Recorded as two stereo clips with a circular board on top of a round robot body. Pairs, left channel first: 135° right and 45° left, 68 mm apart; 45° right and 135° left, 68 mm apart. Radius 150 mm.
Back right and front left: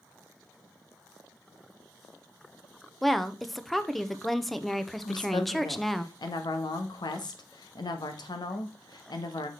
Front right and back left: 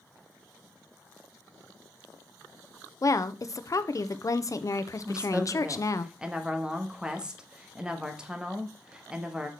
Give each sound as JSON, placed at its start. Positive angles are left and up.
{"t": 3.0, "sound": "a woman speaking", "azimuth_deg": -50, "distance_m": 0.9}
{"t": 5.0, "sound": "a woman speaking", "azimuth_deg": -145, "distance_m": 1.3}